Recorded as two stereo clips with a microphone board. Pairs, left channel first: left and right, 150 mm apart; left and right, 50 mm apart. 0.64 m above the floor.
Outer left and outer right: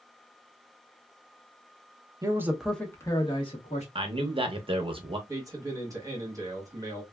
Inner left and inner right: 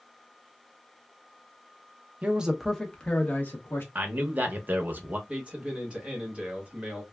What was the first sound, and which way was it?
A man speaking, 25° right (ahead or behind).